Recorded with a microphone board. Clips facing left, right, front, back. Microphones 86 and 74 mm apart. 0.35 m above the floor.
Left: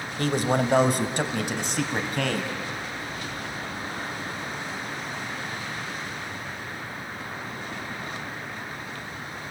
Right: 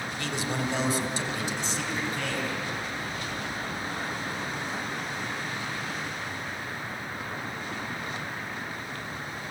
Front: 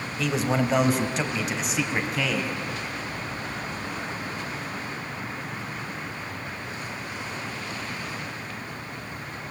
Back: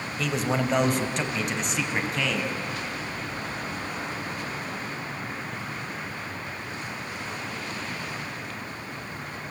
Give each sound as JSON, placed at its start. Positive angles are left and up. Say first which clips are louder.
{"t": 0.2, "sound": "a man speaking", "louder": "left 9 dB, front 2 dB", "azimuth_deg": 90, "distance_m": 1.7}